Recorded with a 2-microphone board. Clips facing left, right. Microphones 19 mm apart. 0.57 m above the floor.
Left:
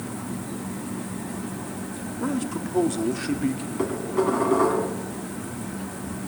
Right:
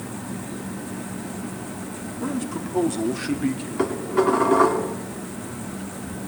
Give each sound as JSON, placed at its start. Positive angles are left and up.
{"t": 2.2, "sound": "a man speaking", "side_deg": 10, "distance_m": 0.9}
{"t": 3.8, "sound": "dishes clattering", "side_deg": -20, "distance_m": 3.0}